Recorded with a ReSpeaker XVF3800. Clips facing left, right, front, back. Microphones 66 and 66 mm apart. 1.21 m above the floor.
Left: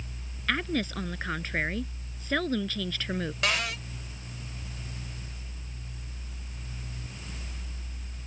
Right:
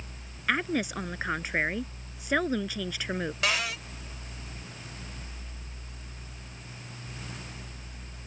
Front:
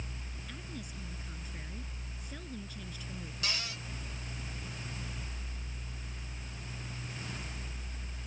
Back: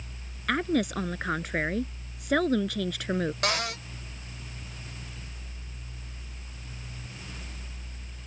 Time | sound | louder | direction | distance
0.5 | a woman speaking | right 1 dB, back 22 dB | 165° right | ?
3.4 | a cupboard door | even, back 10 dB | straight behind | ?